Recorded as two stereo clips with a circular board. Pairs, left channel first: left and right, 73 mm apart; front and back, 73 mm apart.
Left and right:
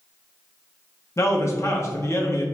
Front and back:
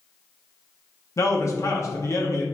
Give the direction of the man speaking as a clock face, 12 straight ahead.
11 o'clock.